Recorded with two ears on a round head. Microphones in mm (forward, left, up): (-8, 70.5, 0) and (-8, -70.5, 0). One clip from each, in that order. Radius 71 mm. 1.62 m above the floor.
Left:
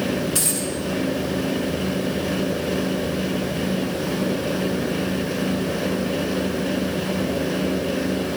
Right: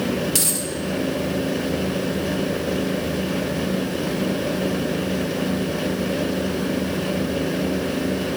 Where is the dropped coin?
50° right (ahead or behind), 2.0 m.